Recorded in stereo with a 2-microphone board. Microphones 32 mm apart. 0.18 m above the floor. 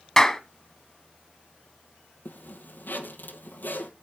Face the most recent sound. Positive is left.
turn(degrees=70)  # may be behind; listen again after turning